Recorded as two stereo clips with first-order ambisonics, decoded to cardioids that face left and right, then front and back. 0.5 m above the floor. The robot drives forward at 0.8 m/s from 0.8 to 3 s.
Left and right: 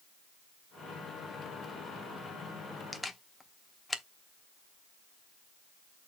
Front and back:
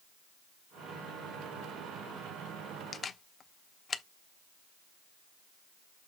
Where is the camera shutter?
15° left, 0.8 m.